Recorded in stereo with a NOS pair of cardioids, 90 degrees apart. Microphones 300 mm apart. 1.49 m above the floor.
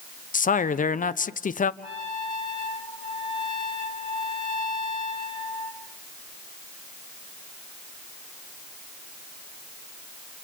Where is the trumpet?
15° left, 5.5 m.